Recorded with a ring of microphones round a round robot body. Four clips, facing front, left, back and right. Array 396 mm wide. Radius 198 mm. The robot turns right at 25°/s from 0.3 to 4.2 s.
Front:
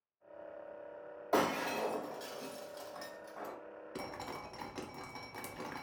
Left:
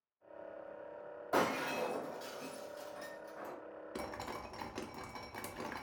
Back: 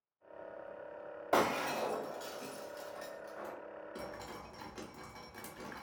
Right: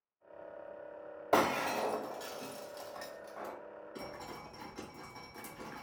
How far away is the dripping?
About 0.7 m.